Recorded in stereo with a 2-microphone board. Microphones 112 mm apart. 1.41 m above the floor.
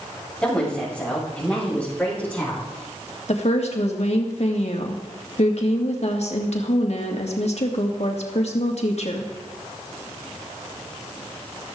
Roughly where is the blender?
No blender in this recording.